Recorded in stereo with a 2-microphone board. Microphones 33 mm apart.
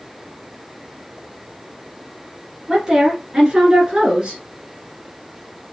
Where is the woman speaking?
10° right (ahead or behind), 1.9 m; by 4.4 s 25° right (ahead or behind), 1.6 m.